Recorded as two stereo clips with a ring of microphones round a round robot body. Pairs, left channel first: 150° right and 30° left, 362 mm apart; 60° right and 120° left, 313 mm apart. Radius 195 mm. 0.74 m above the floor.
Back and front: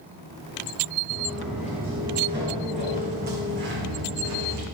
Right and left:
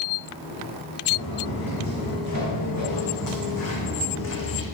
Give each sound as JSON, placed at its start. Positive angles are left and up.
{"t": 1.1, "sound": "footsteps", "azimuth_deg": -60, "distance_m": 3.5}